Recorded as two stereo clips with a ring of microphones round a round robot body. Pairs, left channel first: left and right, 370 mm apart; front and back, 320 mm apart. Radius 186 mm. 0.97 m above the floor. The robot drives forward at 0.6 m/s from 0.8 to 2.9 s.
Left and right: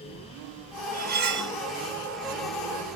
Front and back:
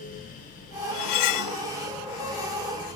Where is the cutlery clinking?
20° right, 1.0 m; by 1.6 s 35° right, 0.6 m.